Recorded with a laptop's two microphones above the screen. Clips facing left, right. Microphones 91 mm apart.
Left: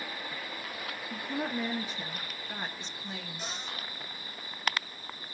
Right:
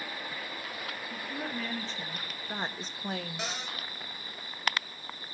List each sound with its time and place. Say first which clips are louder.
1.1 s a woman speaking: left 5 dB; 35° left (ahead or behind), 2 m; by 3.5 s 65° right (ahead or behind), 1.8 m
3.4 s a cupboard door: right 3 dB; 80° right, 4.5 m